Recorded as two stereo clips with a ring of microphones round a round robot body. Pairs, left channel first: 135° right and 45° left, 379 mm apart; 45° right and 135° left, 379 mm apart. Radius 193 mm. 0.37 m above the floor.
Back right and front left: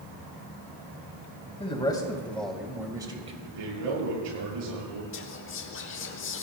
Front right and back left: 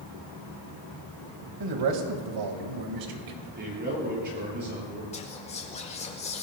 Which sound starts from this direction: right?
Whispering, at 5.1 s.